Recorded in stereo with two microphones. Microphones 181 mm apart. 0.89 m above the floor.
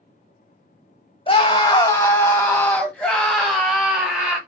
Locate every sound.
1.3 s a scream: 25° left (ahead or behind), 1.3 m; by 4.4 s 5° right (ahead or behind), 2.5 m